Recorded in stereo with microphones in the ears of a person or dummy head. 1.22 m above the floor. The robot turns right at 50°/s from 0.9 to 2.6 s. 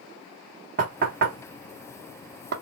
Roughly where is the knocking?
Right.